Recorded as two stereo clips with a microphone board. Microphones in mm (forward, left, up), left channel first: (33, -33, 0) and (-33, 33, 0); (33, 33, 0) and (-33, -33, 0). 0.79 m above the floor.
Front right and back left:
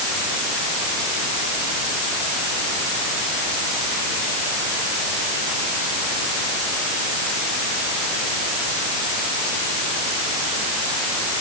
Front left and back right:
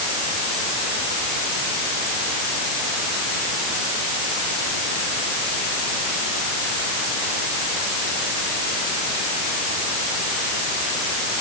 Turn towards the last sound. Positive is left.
No sound to turn to.